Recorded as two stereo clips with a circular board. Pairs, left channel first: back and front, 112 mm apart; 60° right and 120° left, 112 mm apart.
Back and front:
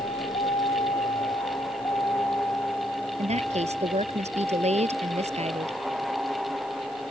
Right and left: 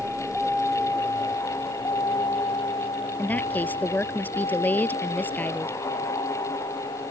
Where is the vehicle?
155° right; by 7.1 s 80° right.